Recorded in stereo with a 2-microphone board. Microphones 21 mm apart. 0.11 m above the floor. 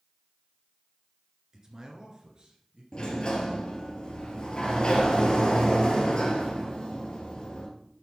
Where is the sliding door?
40° left (ahead or behind), 2.5 m.